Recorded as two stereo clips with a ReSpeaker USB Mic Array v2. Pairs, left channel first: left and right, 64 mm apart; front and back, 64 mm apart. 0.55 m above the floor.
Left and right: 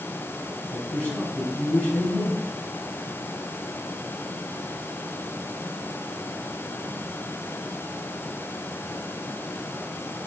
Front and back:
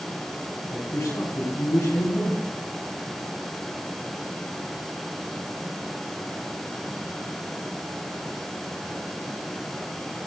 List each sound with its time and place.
0.7 s a man speaking: 25° left, 3.5 m